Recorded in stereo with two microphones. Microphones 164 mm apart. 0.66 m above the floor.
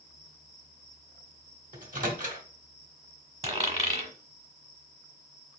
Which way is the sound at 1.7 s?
55° right (ahead or behind).